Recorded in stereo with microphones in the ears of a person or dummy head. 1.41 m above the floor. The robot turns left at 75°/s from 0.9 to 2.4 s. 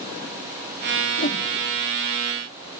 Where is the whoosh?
45° left (ahead or behind); by 1.4 s 25° left (ahead or behind).